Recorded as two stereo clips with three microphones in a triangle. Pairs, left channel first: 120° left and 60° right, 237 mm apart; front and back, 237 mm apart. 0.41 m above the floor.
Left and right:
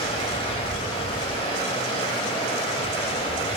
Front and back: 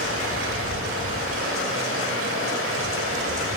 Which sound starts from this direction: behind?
Running water, at 0.0 s.